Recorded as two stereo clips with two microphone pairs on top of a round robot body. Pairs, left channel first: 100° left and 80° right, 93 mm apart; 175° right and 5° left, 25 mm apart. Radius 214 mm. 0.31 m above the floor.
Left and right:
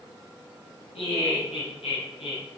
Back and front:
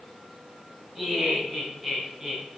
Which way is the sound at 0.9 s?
90° left.